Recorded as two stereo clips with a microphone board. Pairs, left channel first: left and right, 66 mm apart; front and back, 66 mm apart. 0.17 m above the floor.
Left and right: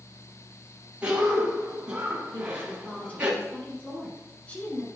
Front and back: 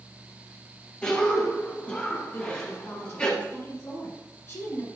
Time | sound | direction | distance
1.0 | a cough | 45° right | 1.1 m
2.3 | a woman speaking | 35° left | 2.5 m